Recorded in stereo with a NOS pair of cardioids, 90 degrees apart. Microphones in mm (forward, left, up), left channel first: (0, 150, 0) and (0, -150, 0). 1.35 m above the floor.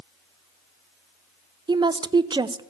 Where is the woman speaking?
15° right, 0.6 m.